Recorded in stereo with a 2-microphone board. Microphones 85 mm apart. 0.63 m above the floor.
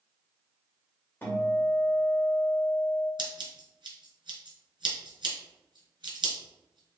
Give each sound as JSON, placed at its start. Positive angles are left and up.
{"t": 1.2, "sound": "a guitar", "side_deg": 25, "distance_m": 1.8}
{"t": 3.2, "sound": "scissors", "side_deg": -70, "distance_m": 1.5}